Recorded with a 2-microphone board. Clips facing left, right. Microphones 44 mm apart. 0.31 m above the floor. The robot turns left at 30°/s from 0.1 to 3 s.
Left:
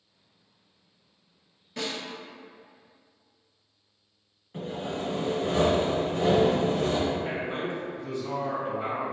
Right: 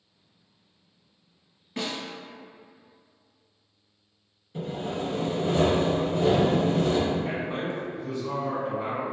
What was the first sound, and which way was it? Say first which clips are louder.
A snare drum: right 1 dB; 25° right (ahead or behind).